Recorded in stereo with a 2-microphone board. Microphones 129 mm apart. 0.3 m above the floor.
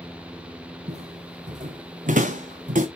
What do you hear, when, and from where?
0.9 s footsteps: 55° right (ahead or behind), 1.8 m; by 2.9 s 80° right, 1.7 m